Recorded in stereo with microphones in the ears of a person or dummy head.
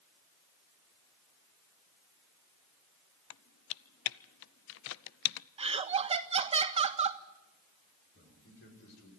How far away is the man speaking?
About 5 m.